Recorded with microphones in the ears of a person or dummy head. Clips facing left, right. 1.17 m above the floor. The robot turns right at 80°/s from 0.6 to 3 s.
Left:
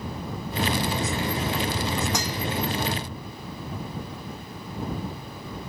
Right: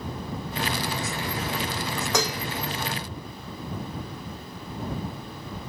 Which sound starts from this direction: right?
Dishes clattering, at 2.1 s.